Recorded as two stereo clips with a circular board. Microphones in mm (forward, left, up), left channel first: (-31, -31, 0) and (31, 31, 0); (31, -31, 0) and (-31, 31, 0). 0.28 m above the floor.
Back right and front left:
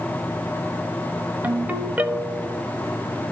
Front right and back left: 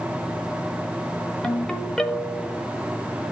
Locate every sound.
1.4 s a ringtone: 20° left, 1.0 m